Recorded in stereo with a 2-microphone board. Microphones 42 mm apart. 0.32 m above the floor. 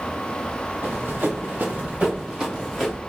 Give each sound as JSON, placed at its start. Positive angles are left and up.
{"t": 0.8, "sound": "running footsteps", "side_deg": -55, "distance_m": 2.5}